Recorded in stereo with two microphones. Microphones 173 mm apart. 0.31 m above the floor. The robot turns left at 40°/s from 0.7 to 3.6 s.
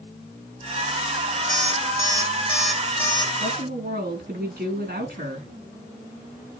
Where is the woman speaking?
70° right (ahead or behind), 4 m; by 5.5 s 65° right (ahead or behind), 4 m.